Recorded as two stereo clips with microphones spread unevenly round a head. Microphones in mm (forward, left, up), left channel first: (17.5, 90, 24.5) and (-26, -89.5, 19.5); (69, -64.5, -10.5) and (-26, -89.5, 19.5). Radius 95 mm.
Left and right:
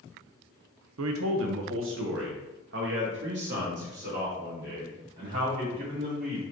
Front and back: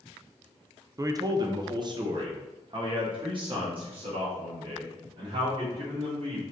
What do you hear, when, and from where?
1.0 s a man speaking: 110° right, 0.7 m; by 6.4 s 140° right, 4 m